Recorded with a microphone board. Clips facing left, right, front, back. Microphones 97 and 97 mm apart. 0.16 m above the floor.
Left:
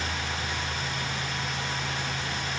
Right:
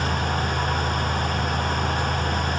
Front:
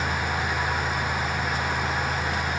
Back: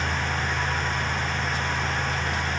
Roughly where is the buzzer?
No buzzer in this recording.